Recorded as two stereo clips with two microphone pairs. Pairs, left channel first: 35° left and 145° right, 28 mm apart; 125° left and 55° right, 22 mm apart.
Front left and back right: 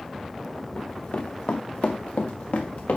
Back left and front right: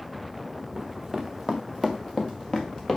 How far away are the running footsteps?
About 1.3 m.